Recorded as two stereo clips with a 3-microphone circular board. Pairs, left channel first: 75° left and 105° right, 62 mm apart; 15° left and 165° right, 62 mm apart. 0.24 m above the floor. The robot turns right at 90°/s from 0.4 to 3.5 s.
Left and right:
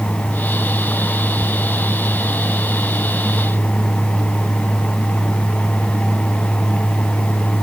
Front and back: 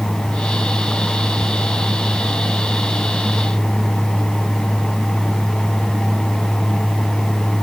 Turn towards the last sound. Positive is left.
No sound to turn to.